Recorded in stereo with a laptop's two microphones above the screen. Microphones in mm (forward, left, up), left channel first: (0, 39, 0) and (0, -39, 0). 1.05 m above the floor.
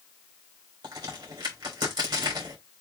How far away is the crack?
About 3.5 m.